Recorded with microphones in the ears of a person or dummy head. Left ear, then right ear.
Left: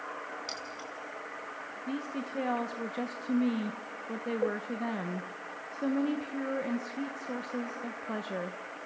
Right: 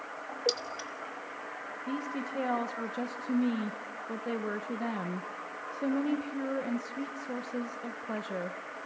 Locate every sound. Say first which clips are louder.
0.5 s keys jangling: right 6 dB; 25° right (ahead or behind), 1.6 m
1.9 s a woman speaking: right 1 dB; centre (ahead or behind), 1.0 m